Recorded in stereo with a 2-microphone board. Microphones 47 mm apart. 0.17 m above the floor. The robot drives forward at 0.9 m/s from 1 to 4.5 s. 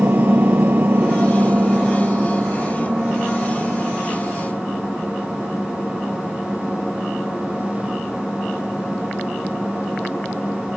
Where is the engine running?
40° right (ahead or behind), 1.2 m; by 10.8 s 10° right (ahead or behind), 4 m.